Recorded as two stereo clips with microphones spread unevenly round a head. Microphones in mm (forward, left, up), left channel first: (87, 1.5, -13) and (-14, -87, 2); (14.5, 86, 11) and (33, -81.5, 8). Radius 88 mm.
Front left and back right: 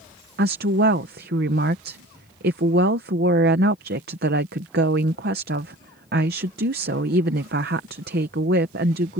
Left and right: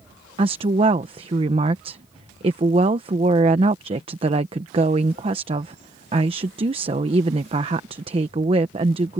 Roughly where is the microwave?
I don't hear a microwave.